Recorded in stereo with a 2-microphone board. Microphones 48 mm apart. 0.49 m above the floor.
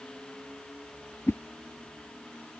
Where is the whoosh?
50° left (ahead or behind).